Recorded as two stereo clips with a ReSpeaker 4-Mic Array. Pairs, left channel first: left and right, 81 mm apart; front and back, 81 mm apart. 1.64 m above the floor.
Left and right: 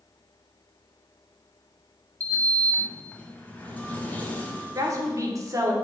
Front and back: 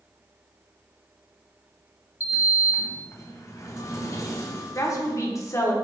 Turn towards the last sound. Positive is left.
turn(degrees=-45)